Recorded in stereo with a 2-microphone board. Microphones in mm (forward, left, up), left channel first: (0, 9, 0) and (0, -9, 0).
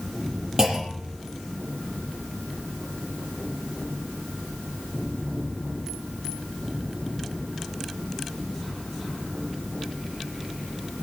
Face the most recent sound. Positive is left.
turn(degrees=-25)  # may be behind; listen again after turning